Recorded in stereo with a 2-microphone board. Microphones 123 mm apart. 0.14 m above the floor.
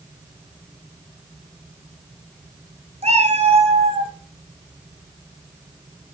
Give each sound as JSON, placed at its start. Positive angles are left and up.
{"t": 3.0, "sound": "a cat meowing", "side_deg": -65, "distance_m": 1.3}